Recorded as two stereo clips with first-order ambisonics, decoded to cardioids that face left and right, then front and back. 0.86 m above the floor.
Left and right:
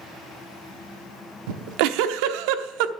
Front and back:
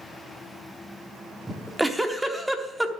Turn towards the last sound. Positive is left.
turn(degrees=-90)